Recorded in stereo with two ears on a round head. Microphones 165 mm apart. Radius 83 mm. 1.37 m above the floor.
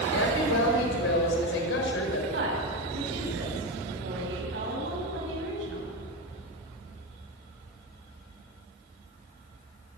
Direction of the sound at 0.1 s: 75° left (ahead or behind).